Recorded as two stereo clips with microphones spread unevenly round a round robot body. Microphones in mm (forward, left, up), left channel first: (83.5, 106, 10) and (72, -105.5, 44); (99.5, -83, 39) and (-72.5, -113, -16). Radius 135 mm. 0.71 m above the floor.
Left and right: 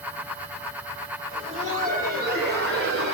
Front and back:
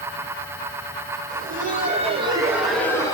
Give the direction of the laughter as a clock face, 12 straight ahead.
6 o'clock.